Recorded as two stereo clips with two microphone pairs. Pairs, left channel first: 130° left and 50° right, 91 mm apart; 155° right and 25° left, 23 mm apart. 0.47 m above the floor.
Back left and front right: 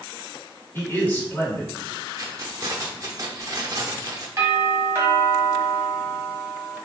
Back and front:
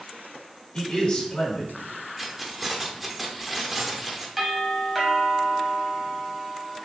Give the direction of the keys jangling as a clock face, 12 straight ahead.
2 o'clock.